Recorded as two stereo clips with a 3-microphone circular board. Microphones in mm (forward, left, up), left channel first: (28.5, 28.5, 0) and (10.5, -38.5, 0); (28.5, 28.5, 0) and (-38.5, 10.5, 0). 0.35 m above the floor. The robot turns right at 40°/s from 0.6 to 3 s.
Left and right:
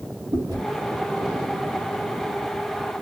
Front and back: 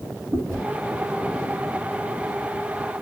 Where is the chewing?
105° right, 3 m.